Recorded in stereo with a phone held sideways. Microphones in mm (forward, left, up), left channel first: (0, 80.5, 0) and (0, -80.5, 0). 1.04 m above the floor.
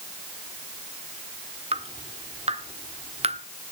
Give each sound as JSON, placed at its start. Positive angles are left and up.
{"t": 1.7, "sound": "dripping", "side_deg": -40, "distance_m": 1.2}